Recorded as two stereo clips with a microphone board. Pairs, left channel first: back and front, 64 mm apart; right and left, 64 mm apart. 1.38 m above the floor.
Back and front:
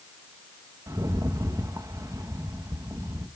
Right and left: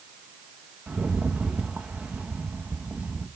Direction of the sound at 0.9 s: 25° left.